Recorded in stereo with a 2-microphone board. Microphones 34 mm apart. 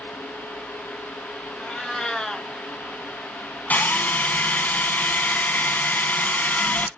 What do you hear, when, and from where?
1.6 s a cat meowing: 20° left (ahead or behind), 0.9 m
3.7 s a drill: 55° left (ahead or behind), 0.6 m